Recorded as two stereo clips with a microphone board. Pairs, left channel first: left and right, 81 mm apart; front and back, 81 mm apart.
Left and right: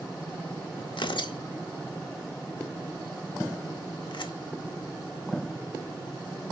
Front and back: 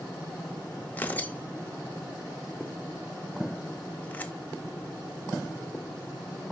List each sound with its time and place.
0.9 s tearing paper: 70° left, 0.8 m